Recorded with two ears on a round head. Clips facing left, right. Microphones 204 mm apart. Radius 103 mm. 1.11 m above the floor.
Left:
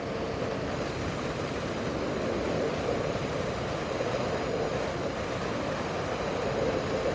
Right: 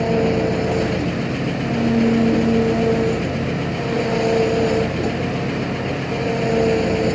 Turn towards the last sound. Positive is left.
turn(degrees=-85)